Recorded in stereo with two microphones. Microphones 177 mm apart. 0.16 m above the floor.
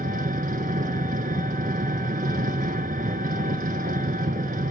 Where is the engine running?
55° right (ahead or behind), 0.9 m.